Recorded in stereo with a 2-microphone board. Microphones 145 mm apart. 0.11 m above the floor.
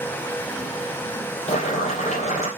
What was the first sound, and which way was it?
Boiling, 50° left (ahead or behind).